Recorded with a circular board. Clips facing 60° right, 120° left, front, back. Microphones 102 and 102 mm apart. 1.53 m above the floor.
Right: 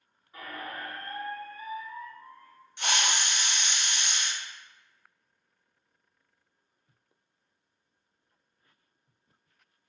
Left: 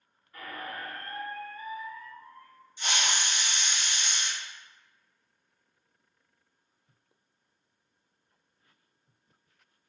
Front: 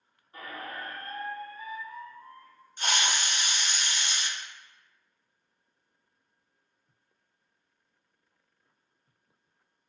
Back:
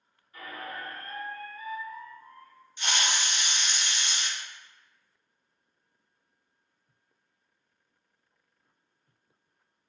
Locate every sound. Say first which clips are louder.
0.3 s a squeak: even, even; 5° left, 1.3 m
2.8 s a hiss: right 2 dB, front 1 dB; 45° right, 0.7 m